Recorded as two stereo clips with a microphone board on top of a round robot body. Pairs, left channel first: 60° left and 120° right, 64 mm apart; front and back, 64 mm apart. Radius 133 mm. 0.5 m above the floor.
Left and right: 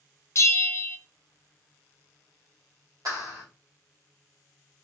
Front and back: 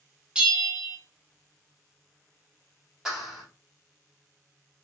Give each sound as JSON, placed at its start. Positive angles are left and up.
{"t": 0.3, "sound": "a bell", "azimuth_deg": 105, "distance_m": 0.6}
{"t": 3.0, "sound": "a clap", "azimuth_deg": -95, "distance_m": 2.0}